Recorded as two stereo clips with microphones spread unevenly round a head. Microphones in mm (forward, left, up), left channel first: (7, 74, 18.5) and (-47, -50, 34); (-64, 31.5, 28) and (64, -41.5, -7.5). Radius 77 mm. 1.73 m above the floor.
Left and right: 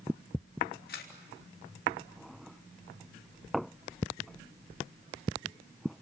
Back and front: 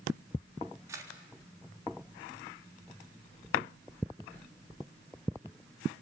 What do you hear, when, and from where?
0.9 s a camera shutter: 45° left, 4 m